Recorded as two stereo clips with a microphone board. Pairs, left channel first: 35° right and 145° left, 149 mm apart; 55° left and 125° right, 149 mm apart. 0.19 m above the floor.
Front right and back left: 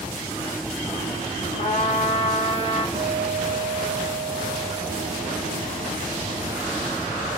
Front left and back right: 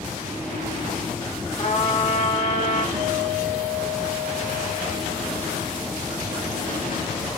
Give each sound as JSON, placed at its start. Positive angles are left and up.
{"t": 1.6, "sound": "a trumpet", "azimuth_deg": 10, "distance_m": 5.0}
{"t": 2.9, "sound": "a guitar", "azimuth_deg": -165, "distance_m": 2.5}